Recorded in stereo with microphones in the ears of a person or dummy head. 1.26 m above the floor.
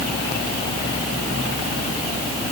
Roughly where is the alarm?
I don't hear an alarm.